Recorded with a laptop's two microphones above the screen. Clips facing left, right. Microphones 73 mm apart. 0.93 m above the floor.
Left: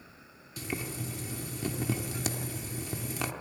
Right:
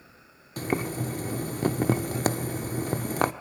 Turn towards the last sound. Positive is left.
turn(degrees=-50)  # may be behind; listen again after turning